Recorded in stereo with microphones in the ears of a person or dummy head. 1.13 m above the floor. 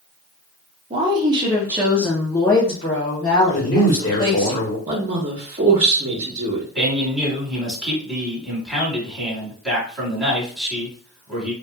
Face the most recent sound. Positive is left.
turn(degrees=0)  # may be behind; listen again after turning